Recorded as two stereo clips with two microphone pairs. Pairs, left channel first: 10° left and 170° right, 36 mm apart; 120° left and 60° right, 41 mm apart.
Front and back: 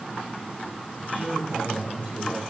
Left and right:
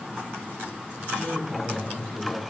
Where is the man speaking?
55° left, 8.5 m.